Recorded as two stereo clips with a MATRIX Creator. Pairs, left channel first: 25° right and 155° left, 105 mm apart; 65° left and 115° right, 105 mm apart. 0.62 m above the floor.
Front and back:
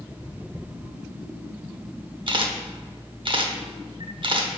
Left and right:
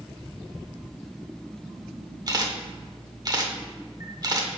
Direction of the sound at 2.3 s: 165° right.